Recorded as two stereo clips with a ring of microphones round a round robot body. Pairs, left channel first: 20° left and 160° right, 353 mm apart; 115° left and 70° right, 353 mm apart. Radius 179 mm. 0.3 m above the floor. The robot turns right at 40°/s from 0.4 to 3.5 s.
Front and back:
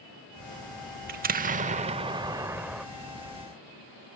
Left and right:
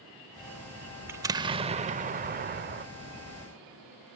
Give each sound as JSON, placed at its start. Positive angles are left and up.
{"t": 1.1, "sound": "an explosion", "azimuth_deg": -140}